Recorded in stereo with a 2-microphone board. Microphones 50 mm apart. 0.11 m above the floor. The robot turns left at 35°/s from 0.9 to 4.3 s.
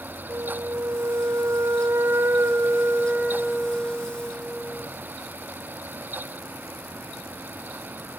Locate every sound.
0.3 s a flute: 65° right, 2.5 m; by 4.9 s 175° left, 2.5 m